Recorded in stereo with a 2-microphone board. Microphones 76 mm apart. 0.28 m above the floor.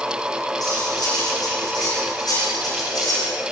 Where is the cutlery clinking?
60° left (ahead or behind), 10 m.